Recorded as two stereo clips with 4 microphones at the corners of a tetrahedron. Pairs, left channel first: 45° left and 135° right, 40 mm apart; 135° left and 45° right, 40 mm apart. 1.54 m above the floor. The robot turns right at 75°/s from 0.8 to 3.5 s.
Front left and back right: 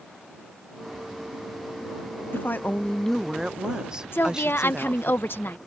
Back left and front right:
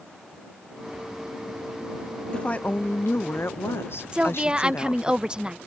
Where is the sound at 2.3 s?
65° left; by 5.1 s 155° left.